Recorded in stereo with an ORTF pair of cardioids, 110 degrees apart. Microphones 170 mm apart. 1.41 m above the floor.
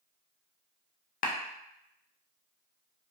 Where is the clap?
50° left, 0.6 m.